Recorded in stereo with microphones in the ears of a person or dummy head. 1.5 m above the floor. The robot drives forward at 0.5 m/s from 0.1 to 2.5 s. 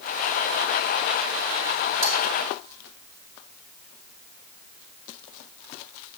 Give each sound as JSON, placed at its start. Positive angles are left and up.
{"t": 2.0, "sound": "cutlery clinking", "side_deg": -60, "distance_m": 1.3}